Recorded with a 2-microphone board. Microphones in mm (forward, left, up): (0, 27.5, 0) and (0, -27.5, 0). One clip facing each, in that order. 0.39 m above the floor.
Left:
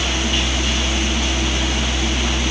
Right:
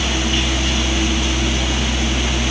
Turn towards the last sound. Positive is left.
No sound to turn to.